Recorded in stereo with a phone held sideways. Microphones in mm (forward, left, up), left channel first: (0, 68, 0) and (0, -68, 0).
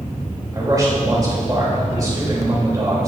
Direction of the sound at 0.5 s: 25° right (ahead or behind).